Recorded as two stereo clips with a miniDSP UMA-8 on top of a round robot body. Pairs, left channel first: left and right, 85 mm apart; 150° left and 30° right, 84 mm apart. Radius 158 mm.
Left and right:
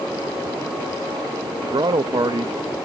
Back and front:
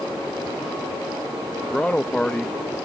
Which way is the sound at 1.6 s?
130° right.